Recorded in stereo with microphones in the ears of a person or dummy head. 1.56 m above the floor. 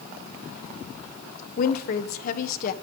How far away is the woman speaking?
About 1.4 m.